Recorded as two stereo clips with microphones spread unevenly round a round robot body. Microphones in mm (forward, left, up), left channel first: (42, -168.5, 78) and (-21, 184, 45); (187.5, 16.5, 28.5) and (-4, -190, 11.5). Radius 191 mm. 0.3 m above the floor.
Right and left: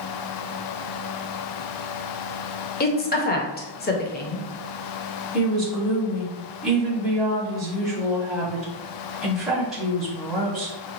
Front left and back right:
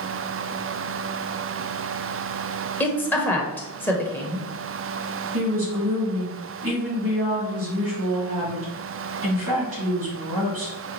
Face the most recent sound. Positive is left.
turn(degrees=-175)